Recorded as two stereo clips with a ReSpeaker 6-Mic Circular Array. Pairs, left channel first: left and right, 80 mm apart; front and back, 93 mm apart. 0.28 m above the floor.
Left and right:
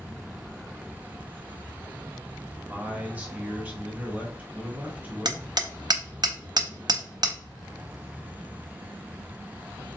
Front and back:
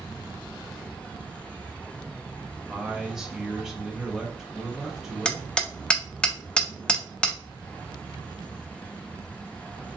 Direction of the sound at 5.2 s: 75° right.